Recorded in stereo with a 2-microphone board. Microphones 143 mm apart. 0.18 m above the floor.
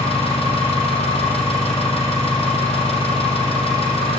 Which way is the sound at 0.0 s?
45° left (ahead or behind).